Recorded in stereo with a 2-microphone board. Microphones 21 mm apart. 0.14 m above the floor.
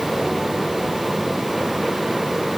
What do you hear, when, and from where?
Only background noise.